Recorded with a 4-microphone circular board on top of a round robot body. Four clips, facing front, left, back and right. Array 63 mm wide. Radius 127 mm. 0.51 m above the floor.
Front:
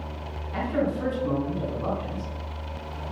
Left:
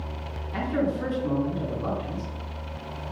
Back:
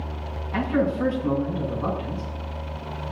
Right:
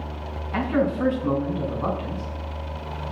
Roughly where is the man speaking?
Right.